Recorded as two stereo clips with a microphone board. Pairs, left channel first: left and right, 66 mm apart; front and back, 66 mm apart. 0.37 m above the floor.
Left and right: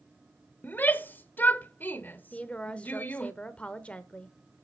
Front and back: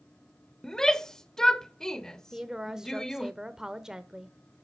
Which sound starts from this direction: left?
A shout, at 0.6 s.